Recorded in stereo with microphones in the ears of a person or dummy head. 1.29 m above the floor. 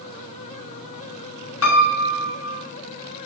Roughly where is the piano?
Left.